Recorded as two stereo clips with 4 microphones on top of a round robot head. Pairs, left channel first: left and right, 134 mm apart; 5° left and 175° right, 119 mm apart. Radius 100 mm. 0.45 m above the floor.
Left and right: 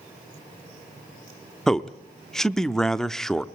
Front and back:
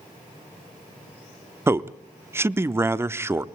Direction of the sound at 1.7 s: 170° left.